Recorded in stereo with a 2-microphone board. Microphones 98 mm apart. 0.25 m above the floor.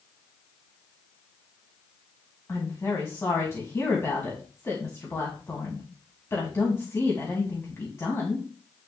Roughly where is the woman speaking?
Left.